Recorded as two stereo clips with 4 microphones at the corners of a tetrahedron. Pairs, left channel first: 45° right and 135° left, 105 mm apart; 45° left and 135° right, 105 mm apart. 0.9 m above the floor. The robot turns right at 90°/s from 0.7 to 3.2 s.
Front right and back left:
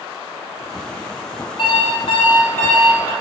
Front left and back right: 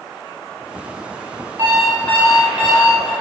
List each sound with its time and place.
1.6 s an alarm clock: 75° right, 0.7 m; by 3.1 s 65° left, 0.7 m